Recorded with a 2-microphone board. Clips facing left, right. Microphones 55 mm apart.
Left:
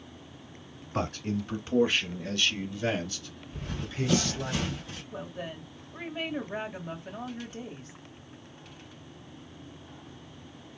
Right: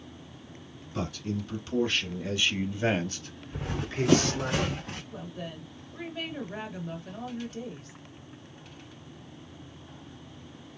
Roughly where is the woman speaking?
Centre.